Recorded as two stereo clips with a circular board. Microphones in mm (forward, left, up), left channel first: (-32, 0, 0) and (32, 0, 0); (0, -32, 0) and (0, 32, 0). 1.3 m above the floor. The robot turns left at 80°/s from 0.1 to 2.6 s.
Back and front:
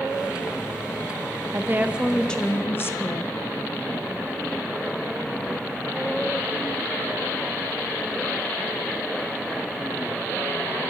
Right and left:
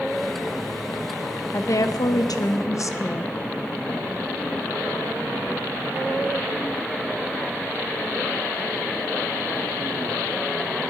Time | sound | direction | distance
1.5 | a woman speaking | 40° right | 0.9 m